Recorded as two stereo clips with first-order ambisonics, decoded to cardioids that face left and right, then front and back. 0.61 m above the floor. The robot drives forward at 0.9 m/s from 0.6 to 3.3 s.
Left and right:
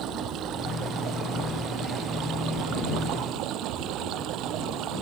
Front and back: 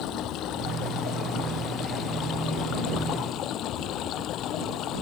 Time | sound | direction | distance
0.0 | running water | 45° right | ?